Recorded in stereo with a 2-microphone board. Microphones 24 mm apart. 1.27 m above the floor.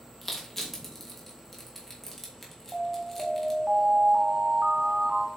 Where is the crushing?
5° left (ahead or behind), 2.5 m.